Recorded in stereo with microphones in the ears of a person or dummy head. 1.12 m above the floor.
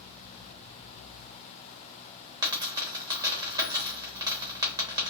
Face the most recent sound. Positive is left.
turn(degrees=-20)  # may be behind; listen again after turning